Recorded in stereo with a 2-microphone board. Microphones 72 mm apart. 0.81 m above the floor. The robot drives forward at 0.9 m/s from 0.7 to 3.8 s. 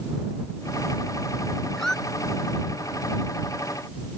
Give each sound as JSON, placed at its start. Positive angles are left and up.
{"t": 1.8, "sound": "a squeak", "side_deg": 5}